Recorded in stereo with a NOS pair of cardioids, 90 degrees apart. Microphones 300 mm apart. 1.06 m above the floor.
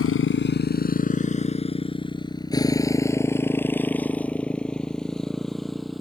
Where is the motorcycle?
45° left; by 6.0 s straight ahead.